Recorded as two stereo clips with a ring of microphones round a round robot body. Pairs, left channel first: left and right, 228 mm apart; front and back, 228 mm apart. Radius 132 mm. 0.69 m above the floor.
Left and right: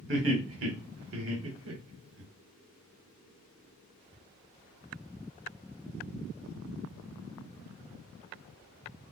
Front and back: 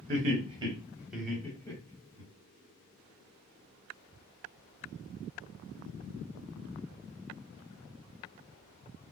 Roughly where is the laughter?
Behind right.